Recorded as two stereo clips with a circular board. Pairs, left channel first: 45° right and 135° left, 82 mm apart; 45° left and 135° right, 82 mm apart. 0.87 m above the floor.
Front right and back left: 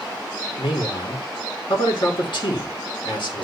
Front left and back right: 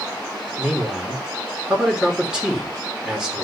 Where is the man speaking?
55° right, 2.5 m.